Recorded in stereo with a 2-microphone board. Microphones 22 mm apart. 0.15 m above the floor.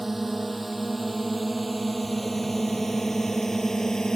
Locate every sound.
0.0 s a drone: 10° right (ahead or behind); by 4.2 s 30° left (ahead or behind)